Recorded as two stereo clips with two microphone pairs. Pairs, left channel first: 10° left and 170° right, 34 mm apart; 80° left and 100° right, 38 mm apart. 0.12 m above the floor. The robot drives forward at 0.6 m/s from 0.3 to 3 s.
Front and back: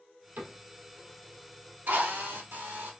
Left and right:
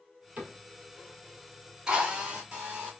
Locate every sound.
0.4 s a cupboard door: 155° right, 1.7 m; by 0.6 s 160° right, 1.8 m
1.9 s a drill: 165° right, 1.0 m; by 3.0 s 175° right, 1.6 m